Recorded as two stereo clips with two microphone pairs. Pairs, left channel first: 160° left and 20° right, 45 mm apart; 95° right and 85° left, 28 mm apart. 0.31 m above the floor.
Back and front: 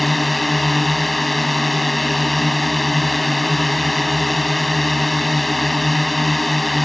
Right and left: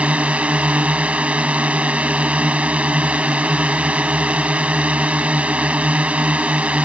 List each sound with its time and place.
0.0 s a drone: 75° left